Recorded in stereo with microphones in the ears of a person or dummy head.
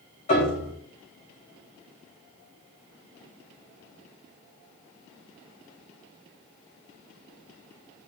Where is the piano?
40° left (ahead or behind), 3.5 m.